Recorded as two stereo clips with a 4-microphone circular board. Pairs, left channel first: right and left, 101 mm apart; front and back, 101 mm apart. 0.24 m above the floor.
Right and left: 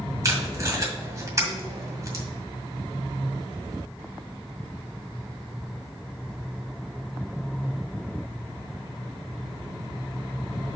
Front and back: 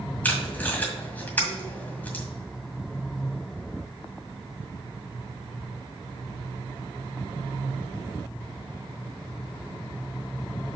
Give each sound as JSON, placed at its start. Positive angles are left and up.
{"t": 0.2, "sound": "tape being pulled", "azimuth_deg": 60, "distance_m": 1.9}